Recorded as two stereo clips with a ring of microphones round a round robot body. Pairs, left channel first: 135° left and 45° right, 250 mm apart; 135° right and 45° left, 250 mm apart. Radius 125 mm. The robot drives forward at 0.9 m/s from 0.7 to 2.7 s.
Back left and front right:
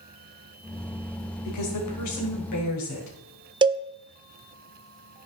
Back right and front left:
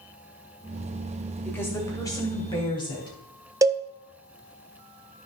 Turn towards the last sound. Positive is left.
turn(degrees=-10)